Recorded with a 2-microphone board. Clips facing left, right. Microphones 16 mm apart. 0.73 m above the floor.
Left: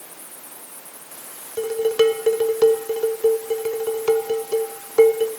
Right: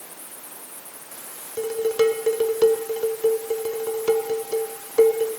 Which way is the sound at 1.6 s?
60° left (ahead or behind).